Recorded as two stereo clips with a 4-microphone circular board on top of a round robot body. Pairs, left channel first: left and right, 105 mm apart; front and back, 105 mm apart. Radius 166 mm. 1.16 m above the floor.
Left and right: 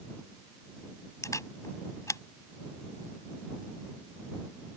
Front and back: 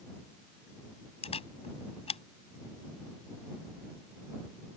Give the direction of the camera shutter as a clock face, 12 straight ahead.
11 o'clock.